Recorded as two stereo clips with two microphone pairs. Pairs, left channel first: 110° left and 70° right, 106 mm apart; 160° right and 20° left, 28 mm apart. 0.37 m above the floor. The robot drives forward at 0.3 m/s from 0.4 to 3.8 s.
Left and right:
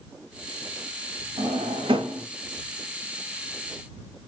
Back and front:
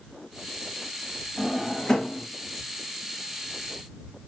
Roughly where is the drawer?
Right.